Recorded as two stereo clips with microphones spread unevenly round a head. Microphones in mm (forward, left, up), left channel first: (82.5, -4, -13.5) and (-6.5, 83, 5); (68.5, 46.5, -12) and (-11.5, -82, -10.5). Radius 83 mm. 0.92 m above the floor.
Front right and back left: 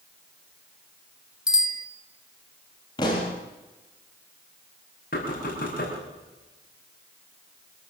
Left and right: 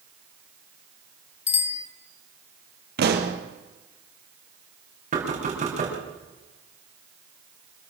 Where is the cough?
I don't hear a cough.